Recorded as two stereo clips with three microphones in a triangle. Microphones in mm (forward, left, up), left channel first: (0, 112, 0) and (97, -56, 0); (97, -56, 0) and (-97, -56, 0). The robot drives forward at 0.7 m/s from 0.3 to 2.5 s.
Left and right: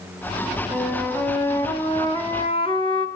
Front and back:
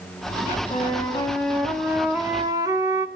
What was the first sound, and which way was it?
A flute, 35° left.